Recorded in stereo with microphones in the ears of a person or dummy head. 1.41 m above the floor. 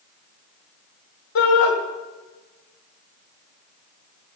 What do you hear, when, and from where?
1.4 s a shout: 60° left (ahead or behind), 2 m